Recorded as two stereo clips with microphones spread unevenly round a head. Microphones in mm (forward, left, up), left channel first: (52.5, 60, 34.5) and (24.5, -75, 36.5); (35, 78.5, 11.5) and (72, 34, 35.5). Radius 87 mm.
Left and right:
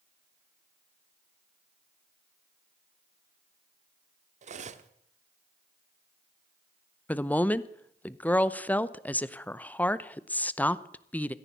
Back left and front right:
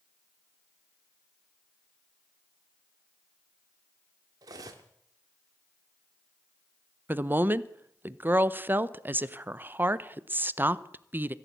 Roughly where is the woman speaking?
Ahead.